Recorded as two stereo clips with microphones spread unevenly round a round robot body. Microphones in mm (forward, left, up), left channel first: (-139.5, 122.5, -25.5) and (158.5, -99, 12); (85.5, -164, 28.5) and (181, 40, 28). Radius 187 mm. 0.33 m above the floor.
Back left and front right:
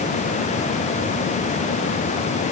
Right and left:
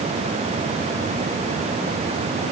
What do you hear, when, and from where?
Only background noise.